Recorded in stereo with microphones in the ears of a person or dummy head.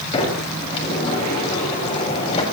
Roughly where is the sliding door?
Left.